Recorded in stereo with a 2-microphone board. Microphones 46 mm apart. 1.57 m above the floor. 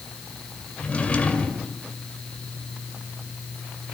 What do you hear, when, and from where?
0.8 s a drawer: 30° left (ahead or behind), 2 m